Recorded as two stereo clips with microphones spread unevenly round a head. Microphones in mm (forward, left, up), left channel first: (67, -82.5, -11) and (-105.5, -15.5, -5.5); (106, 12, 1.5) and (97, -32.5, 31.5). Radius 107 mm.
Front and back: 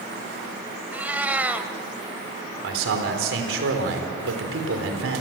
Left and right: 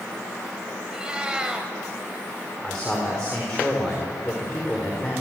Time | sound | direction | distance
0.9 | a cat meowing | 125° right | 2.0 m
2.6 | a man speaking | 165° left | 4.5 m